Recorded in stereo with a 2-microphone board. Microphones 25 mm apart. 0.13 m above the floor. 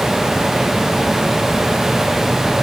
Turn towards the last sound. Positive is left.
No sound to turn to.